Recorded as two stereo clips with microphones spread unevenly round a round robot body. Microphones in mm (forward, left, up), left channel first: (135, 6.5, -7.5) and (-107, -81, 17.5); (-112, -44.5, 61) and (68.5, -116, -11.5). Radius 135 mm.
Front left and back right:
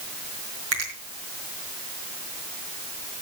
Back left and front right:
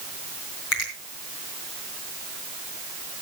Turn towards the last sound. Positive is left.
turn(degrees=150)